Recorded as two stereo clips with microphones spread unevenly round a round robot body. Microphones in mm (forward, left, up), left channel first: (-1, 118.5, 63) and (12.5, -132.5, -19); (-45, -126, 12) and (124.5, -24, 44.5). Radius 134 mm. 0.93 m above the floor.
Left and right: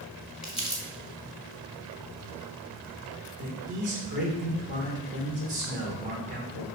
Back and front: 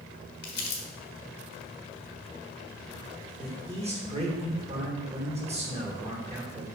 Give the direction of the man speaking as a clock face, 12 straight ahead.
1 o'clock.